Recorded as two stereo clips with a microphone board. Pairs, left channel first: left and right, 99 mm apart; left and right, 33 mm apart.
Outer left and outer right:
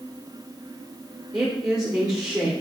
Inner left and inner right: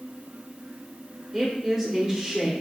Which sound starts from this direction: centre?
A woman speaking, at 1.3 s.